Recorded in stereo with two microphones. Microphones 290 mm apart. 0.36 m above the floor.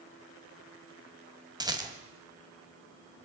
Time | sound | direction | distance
1.6 | a rattle | 15° right (ahead or behind) | 1.7 m